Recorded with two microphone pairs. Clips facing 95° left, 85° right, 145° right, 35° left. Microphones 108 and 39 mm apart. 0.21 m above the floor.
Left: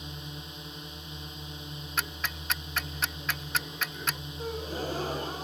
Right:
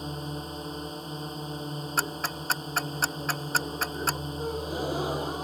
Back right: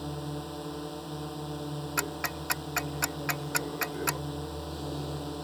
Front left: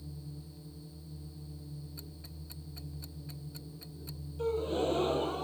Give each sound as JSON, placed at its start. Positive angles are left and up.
{"t": 0.0, "sound": "a drone", "azimuth_deg": -135}
{"t": 2.0, "sound": "ticking", "azimuth_deg": -140}
{"t": 4.4, "sound": "a gasp", "azimuth_deg": -5}